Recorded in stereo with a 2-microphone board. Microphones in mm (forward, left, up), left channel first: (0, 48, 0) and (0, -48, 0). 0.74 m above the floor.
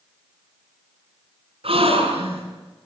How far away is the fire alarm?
No fire alarm in this recording.